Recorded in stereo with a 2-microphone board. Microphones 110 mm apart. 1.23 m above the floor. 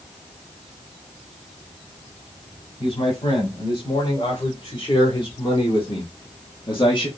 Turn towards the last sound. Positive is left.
turn(degrees=45)  # may be behind; listen again after turning